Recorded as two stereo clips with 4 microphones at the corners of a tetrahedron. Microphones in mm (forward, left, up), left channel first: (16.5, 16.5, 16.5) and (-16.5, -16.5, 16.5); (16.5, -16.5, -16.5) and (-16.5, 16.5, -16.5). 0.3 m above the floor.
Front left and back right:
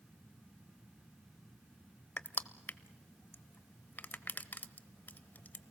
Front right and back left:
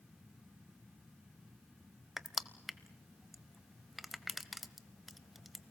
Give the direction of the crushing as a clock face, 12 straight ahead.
11 o'clock.